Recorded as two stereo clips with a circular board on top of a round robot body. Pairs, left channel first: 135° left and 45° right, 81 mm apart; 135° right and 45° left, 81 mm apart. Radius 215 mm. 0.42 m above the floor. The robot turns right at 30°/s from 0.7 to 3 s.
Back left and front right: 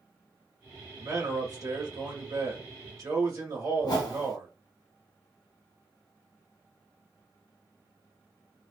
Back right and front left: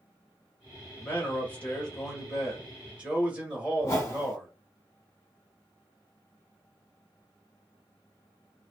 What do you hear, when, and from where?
1.0 s a man speaking: 85° right, 1.5 m; by 4.5 s 25° right, 1.5 m
3.8 s a whoosh: 170° left, 0.7 m